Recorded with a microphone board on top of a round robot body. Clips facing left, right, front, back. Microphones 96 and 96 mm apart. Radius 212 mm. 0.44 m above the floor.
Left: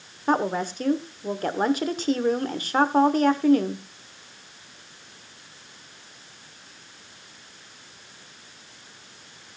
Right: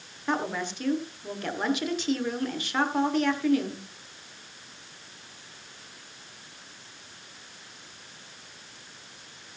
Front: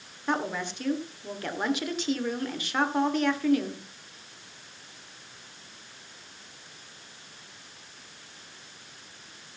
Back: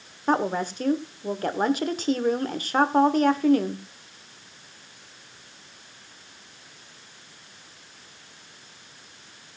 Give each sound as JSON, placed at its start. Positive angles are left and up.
{"t": 0.3, "sound": "a woman speaking", "azimuth_deg": 135, "distance_m": 1.7}